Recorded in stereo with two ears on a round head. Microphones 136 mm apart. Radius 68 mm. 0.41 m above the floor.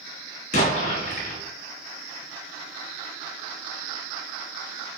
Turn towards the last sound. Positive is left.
turn(degrees=55)  # may be behind; listen again after turning